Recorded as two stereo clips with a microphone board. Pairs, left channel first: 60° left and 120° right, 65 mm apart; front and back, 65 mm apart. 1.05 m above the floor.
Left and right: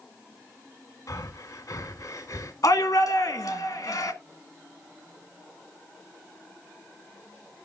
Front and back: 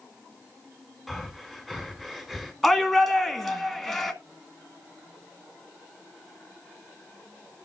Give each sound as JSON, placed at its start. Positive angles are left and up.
{"t": 1.1, "sound": "breathing", "azimuth_deg": 95, "distance_m": 1.8}
{"t": 2.6, "sound": "a shout", "azimuth_deg": 90, "distance_m": 1.7}